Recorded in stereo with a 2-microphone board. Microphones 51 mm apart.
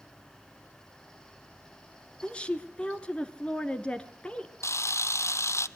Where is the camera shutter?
75° left (ahead or behind), 0.8 m.